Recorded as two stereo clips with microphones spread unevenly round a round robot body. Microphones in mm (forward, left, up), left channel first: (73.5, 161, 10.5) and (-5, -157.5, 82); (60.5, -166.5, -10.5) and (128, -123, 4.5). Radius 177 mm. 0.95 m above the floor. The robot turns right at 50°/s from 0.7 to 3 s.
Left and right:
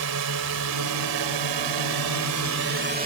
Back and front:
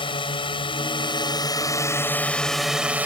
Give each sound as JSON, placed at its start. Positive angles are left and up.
{"t": 0.0, "sound": "a drone", "azimuth_deg": -150}